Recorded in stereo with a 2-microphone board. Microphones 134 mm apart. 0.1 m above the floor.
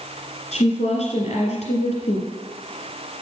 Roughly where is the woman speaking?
Left.